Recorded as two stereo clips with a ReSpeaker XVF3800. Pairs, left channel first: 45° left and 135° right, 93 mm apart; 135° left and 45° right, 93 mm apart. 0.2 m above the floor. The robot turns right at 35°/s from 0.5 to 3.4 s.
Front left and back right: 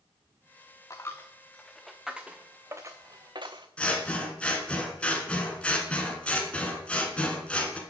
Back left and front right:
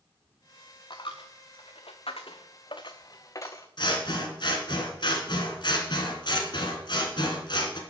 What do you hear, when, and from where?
0.9 s a dropped coin: 100° left, 1.0 m; by 3.7 s 175° right, 1.0 m
3.8 s scissors: 120° left, 1.9 m